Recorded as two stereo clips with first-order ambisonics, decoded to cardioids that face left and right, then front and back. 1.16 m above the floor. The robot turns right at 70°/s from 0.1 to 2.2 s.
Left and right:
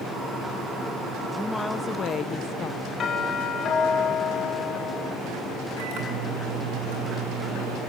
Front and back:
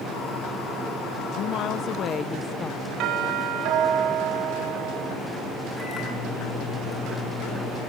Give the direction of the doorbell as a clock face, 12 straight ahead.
7 o'clock.